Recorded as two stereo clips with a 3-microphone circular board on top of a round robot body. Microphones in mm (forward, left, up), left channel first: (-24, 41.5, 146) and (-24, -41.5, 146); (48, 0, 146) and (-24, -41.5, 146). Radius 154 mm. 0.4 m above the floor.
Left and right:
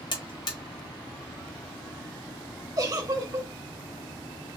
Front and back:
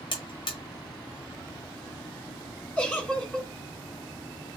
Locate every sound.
0.1 s a buzzer: 60° left, 1.2 m
2.8 s a giggle: 45° right, 2.5 m